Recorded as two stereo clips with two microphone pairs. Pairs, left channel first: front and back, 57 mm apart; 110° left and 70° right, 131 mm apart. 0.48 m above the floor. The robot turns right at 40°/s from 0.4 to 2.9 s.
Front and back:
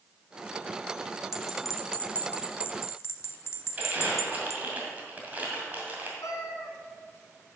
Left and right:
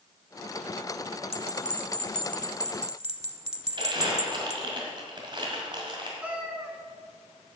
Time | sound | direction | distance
1.3 | a bell | 100° right | 0.8 m
3.8 | crumpling | 120° right | 2 m
6.2 | a cat meowing | 10° left | 1.4 m